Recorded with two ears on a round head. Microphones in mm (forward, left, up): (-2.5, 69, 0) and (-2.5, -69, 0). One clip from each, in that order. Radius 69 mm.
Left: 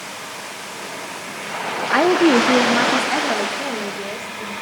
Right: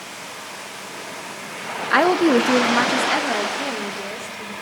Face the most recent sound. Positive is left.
turn(degrees=-15)  # may be behind; listen again after turning